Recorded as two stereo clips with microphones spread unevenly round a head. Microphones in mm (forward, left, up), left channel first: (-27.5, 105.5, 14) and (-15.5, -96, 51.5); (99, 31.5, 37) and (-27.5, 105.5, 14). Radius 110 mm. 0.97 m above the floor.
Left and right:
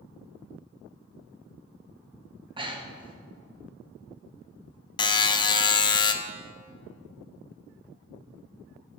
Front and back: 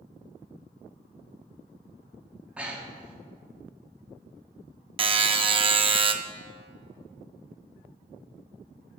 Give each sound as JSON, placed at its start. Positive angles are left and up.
{"t": 2.6, "sound": "breathing", "azimuth_deg": -150, "distance_m": 1.0}
{"t": 5.0, "sound": "a buzzer", "azimuth_deg": 140, "distance_m": 0.5}